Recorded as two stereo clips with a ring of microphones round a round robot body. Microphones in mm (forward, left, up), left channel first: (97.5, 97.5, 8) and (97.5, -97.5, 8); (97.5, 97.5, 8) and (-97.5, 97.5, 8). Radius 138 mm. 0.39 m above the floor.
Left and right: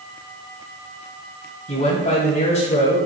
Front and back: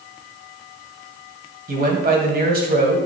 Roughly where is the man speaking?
Behind left.